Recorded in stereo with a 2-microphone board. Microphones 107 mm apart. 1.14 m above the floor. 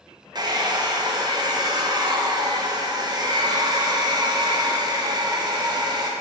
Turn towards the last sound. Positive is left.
turn(degrees=-40)  # may be behind; listen again after turning